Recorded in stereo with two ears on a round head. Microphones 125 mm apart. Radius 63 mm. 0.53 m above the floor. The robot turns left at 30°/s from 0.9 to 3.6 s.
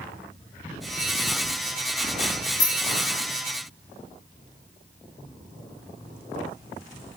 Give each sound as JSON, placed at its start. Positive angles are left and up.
{"t": 2.6, "sound": "keys jangling", "side_deg": 85, "distance_m": 6.0}